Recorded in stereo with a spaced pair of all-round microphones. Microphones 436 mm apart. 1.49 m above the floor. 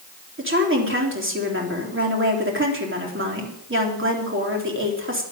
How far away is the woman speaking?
About 3.5 m.